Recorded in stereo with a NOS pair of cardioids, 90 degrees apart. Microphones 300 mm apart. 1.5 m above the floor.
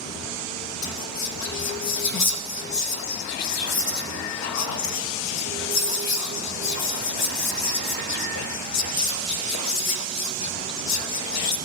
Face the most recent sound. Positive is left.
turn(degrees=65)